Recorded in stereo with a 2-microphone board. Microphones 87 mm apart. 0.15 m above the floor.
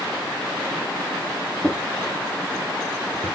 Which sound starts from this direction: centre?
A drawer, at 1.6 s.